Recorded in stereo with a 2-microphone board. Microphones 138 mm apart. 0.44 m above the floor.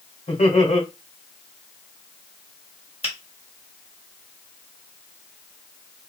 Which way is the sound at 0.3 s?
60° left (ahead or behind).